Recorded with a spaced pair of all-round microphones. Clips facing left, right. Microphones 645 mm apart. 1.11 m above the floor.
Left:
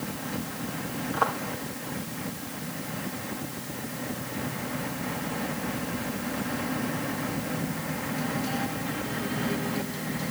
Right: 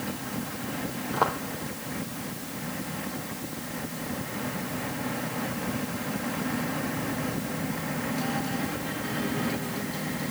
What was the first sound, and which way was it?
Footsteps, 65° right (ahead or behind).